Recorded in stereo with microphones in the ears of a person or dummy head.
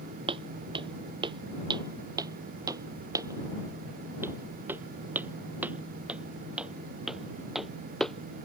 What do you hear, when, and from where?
0.3 s footsteps: 20° right (ahead or behind); by 8.5 s 5° left (ahead or behind)